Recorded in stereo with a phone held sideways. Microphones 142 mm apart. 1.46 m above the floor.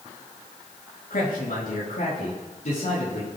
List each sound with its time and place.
1.1 s a man speaking: 90° left, 3 m; by 3.3 s 60° left (ahead or behind), 3.5 m